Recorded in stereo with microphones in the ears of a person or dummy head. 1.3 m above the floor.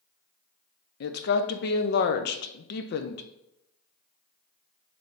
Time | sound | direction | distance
1.0 | a woman speaking | 55° left (ahead or behind) | 0.5 m